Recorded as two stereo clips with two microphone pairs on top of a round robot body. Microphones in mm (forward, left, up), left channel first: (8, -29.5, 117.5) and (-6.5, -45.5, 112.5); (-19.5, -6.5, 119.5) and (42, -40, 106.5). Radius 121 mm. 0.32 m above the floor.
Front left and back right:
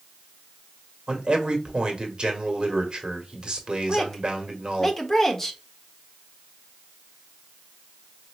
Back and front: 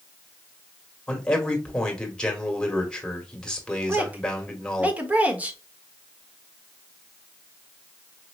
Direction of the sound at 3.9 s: 35° right.